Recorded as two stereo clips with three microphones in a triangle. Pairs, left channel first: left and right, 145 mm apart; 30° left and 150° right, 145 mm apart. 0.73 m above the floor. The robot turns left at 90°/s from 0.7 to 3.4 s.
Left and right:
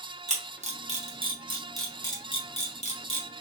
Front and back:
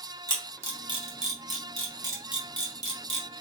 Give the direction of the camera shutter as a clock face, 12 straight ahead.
3 o'clock.